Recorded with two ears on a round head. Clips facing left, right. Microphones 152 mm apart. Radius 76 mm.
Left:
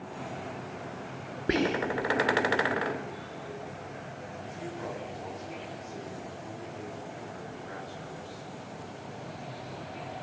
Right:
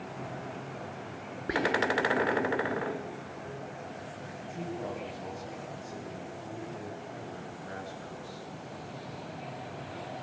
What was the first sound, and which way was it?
Whispering, 30° left (ahead or behind).